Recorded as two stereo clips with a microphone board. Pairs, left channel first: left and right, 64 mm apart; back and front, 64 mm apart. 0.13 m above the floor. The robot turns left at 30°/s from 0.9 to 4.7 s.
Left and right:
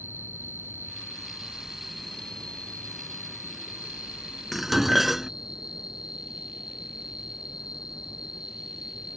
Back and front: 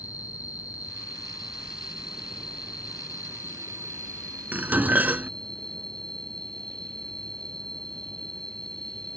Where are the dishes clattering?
Straight ahead; by 5.3 s 5° right.